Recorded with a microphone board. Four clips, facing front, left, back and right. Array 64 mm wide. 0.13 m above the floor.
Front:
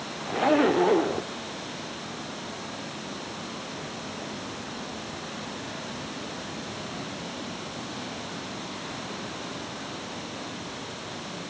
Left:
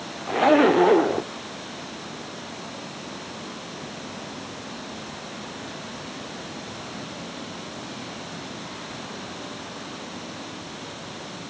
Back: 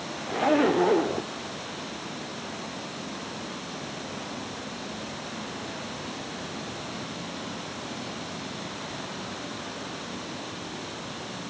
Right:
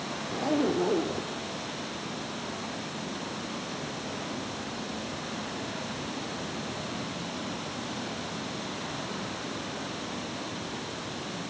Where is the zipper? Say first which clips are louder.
Left 11 dB, front 1 dB; 90° left.